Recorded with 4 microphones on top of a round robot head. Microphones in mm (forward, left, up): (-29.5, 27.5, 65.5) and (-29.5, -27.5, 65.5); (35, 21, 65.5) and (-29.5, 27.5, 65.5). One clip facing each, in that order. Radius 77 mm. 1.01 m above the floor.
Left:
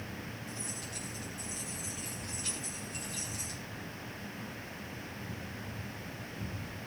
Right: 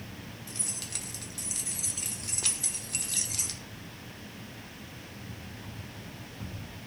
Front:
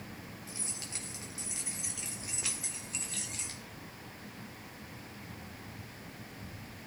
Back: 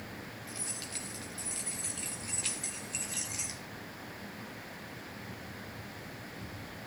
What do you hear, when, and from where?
0.5 s keys jangling: 75° right, 2.5 m; by 3.6 s 110° right, 1.4 m